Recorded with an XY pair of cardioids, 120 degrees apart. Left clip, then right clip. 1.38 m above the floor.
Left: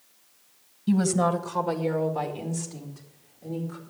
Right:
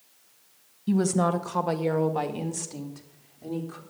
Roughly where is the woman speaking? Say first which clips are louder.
Left 1 dB; ahead.